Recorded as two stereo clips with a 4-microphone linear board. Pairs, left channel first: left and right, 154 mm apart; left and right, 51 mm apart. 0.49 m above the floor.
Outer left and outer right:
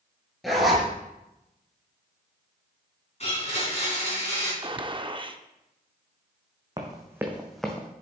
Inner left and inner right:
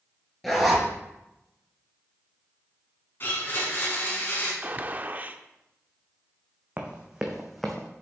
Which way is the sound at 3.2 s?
45° left (ahead or behind).